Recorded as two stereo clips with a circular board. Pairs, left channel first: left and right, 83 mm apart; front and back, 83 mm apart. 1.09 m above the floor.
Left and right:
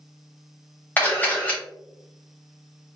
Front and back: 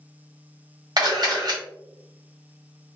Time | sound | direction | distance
1.0 | a camera shutter | 155° left | 1.6 m